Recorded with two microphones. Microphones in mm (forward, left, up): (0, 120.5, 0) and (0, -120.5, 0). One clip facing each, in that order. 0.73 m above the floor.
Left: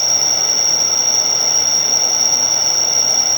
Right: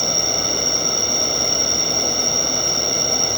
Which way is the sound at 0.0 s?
30° left (ahead or behind).